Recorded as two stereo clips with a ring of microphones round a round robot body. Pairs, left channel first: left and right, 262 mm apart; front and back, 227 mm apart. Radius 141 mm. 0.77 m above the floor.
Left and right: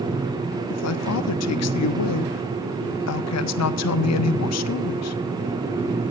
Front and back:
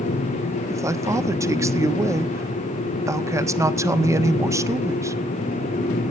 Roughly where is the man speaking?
Left.